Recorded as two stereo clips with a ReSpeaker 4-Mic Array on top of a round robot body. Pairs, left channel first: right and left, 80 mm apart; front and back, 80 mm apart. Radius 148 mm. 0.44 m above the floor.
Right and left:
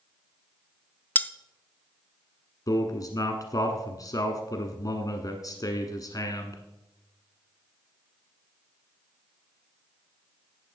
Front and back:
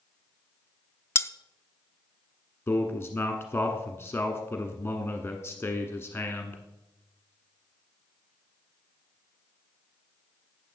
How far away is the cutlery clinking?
About 0.6 m.